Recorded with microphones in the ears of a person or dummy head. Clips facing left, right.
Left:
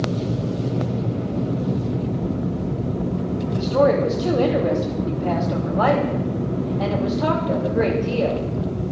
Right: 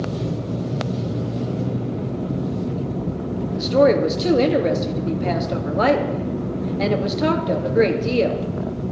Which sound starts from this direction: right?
A woman speaking, at 3.6 s.